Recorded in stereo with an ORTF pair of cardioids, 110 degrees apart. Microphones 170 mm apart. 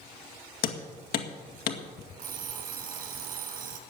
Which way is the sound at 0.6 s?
65° left.